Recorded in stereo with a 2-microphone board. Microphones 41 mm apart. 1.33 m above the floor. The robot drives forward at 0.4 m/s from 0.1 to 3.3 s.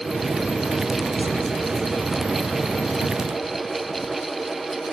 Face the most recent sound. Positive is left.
No sound to turn to.